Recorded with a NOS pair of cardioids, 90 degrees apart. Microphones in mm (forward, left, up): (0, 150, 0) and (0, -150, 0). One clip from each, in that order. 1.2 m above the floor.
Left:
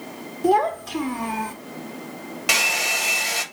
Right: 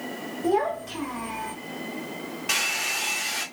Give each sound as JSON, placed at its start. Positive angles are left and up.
{"t": 0.4, "sound": "a child speaking", "azimuth_deg": 55, "distance_m": 1.5}
{"t": 2.5, "sound": "a hair dryer", "azimuth_deg": 60, "distance_m": 1.4}